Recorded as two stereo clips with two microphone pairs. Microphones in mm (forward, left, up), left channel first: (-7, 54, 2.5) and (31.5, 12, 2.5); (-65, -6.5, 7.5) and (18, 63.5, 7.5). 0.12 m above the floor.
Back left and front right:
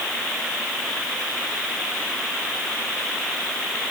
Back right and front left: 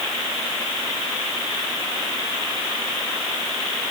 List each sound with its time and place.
Only background noise.